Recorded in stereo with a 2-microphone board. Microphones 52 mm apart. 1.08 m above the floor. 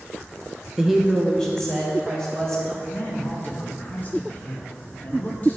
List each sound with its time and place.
0.8 s a woman speaking: 10° right (ahead or behind), 0.5 m; by 2.8 s 20° left (ahead or behind), 3 m
2.9 s a man speaking: 35° left (ahead or behind), 1.7 m